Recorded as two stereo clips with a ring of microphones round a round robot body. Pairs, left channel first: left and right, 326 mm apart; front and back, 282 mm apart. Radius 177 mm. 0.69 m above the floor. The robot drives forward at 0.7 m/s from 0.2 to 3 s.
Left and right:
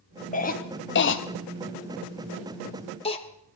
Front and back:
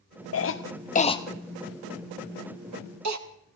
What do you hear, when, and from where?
0.3 s a cough: 25° left, 1.0 m; by 3.2 s 160° left, 1.3 m